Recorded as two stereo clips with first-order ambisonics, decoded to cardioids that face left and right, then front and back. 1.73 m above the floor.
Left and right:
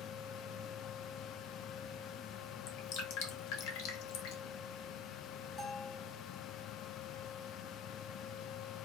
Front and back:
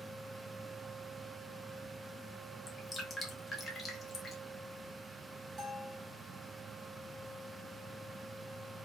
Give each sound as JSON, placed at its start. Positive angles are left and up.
{"t": 2.7, "sound": "dripping", "azimuth_deg": 80, "distance_m": 1.0}
{"t": 5.6, "sound": "a bell", "azimuth_deg": 150, "distance_m": 1.7}